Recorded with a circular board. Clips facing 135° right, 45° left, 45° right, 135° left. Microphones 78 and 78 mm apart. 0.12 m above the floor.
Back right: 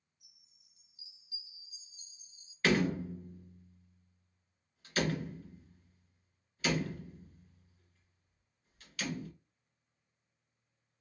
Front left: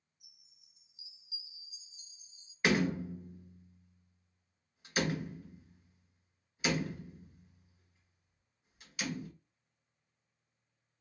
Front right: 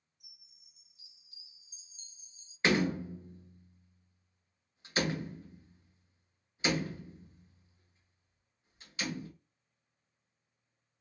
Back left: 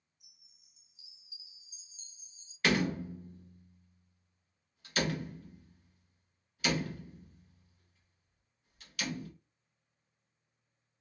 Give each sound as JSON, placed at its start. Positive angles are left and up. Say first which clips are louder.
{"t": 0.2, "sound": "a chime", "louder": "front left 3 dB, front right 5 dB", "azimuth_deg": -20, "distance_m": 1.7}
{"t": 2.6, "sound": "a door slam", "louder": "even, front right 1 dB", "azimuth_deg": -10, "distance_m": 0.8}